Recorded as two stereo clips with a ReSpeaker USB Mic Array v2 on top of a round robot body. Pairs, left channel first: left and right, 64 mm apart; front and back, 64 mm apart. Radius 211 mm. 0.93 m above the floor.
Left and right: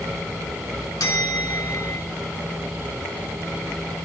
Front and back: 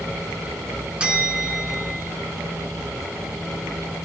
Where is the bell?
105° left, 1.8 m.